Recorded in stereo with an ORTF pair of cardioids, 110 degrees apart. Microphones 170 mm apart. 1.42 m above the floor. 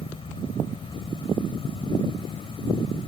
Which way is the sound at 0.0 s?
30° left.